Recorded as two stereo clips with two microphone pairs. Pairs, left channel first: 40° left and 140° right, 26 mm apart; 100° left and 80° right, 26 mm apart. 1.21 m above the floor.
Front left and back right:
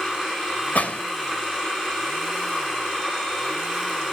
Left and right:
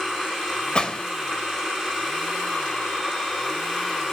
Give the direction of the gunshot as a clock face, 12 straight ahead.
10 o'clock.